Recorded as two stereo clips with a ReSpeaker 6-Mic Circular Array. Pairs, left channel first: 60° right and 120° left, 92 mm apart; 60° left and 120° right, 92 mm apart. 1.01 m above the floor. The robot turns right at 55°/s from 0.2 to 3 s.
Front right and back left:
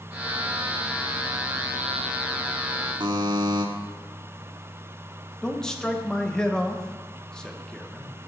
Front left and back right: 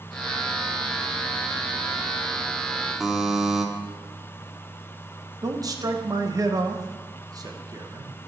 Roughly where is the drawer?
I don't hear a drawer.